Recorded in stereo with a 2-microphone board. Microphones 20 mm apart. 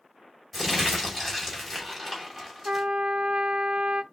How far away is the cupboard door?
No cupboard door in this recording.